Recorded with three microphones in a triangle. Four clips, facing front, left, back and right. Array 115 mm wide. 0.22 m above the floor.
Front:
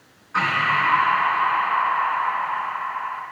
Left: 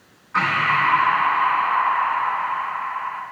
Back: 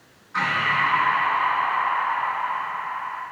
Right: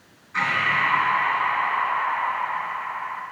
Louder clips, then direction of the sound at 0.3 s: Left 4 dB, front 2 dB; 55° left.